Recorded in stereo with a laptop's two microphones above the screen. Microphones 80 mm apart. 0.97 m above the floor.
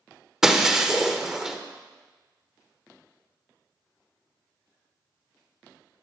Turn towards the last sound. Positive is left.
turn(degrees=-5)  # may be behind; listen again after turning